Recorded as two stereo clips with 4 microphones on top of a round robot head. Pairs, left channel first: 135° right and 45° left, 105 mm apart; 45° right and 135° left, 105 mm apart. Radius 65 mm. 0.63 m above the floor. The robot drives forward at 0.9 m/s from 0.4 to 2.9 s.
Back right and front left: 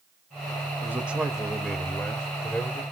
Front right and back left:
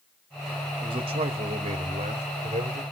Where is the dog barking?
No dog barking in this recording.